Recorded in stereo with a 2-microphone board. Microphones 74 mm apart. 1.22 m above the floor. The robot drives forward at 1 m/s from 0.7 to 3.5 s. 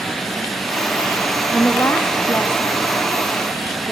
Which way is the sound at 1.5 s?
40° left (ahead or behind).